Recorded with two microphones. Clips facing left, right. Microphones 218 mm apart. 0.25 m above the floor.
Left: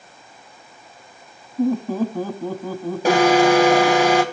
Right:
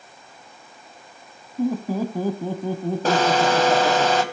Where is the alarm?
10° left (ahead or behind), 2.5 m.